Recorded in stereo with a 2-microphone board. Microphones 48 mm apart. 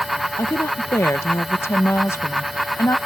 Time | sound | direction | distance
0.4 | a woman speaking | 65° left (ahead or behind) | ?